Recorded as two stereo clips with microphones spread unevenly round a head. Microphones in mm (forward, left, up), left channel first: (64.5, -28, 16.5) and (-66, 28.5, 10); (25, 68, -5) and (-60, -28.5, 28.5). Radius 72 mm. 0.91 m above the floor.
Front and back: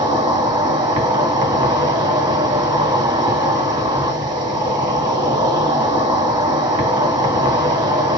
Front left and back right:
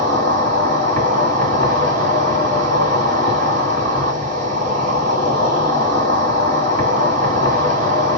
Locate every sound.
0.0 s an insect: 150° right, 2 m